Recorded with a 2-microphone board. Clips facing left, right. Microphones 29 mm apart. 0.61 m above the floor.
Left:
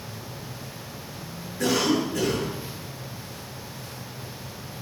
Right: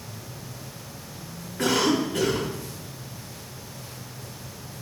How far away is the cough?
About 4.5 m.